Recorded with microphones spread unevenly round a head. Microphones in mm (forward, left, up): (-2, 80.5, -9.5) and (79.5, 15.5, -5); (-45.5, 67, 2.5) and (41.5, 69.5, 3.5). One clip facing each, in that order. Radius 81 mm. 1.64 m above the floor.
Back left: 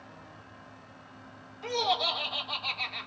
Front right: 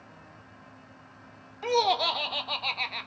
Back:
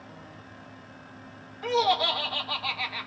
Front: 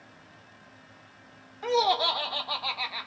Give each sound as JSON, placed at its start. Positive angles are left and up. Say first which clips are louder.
{"t": 1.6, "sound": "laughter", "louder": "front right 5 dB, even", "azimuth_deg": -75, "distance_m": 1.2}